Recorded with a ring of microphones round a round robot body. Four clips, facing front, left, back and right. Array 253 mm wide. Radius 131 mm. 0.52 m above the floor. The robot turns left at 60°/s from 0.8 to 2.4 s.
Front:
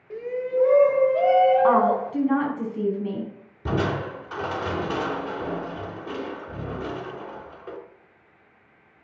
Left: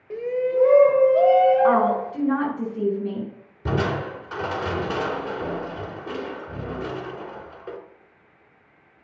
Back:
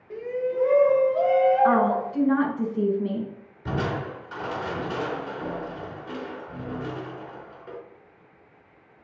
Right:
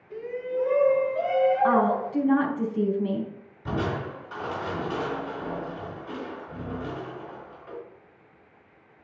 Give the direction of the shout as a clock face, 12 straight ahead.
9 o'clock.